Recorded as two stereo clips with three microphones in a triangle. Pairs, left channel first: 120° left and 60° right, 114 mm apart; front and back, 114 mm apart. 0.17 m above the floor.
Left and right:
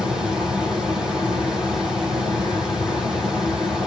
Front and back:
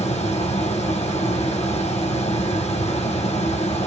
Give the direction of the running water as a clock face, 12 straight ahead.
11 o'clock.